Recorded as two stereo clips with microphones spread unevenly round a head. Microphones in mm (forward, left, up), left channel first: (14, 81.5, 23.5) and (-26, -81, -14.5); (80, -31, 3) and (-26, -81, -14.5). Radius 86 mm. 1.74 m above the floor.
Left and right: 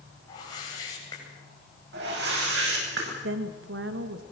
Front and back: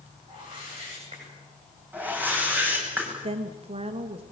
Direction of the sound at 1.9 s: 80° right.